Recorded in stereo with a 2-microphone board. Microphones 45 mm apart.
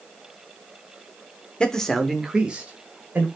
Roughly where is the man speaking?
Left.